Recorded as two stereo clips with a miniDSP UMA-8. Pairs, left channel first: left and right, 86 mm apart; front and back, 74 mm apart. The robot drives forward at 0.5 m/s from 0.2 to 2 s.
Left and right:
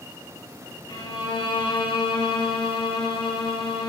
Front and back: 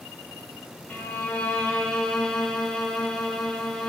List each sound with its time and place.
0.9 s a violin: 65° left, 2 m; by 3.9 s 80° left, 2 m